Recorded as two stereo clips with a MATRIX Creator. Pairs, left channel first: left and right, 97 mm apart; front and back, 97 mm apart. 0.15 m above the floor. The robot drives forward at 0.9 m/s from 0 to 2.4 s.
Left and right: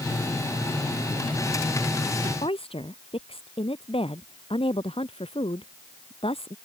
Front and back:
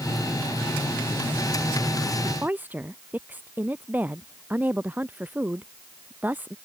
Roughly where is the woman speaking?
Left.